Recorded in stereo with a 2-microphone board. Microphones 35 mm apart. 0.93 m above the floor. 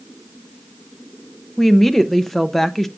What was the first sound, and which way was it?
A woman speaking, 5° left (ahead or behind).